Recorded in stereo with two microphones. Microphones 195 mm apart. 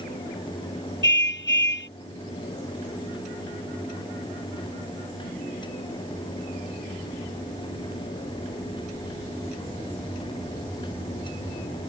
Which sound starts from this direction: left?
A car horn, at 1.0 s.